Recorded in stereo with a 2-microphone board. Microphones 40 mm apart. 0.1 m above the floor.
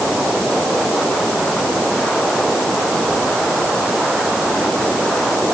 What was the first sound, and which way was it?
Only background noise.